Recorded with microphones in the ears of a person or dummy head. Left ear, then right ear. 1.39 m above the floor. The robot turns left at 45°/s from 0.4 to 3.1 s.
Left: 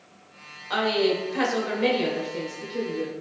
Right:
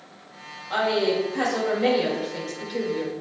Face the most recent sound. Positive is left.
turn(degrees=-50)